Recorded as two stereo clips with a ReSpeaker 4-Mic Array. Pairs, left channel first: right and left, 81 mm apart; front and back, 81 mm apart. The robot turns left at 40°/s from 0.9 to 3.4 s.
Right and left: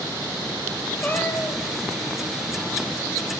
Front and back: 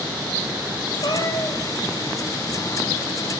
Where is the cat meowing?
20° right, 1.6 m; by 1.6 s 45° right, 1.6 m.